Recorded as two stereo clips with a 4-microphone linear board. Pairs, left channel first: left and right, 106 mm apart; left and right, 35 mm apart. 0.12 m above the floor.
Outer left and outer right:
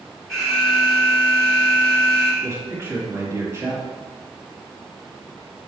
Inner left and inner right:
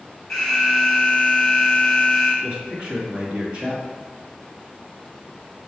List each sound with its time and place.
0.3 s an alarm: 5° left (ahead or behind), 1.4 m
2.4 s a man speaking: 25° right (ahead or behind), 1.7 m